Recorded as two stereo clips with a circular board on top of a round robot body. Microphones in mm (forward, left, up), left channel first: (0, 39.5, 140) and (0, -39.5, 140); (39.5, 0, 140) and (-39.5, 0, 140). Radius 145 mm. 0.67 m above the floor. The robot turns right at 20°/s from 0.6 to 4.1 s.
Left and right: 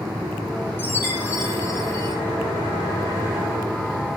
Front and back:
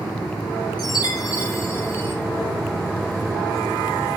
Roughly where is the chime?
Ahead left.